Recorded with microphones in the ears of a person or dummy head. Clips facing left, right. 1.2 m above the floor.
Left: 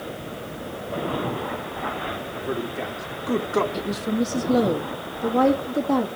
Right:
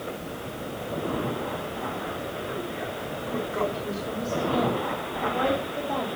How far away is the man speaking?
About 2.5 m.